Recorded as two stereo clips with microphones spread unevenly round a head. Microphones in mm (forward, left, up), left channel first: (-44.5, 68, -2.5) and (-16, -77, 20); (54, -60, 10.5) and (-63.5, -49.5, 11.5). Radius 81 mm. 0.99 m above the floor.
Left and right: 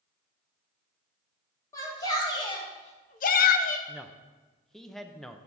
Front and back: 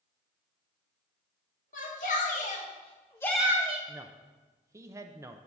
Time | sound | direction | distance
1.7 | a shout | 30° left | 2 m
3.9 | a man speaking | 165° left | 0.5 m